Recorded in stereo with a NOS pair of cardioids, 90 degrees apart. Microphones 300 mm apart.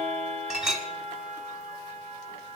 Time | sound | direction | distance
0.5 | a clink | straight ahead | 2 m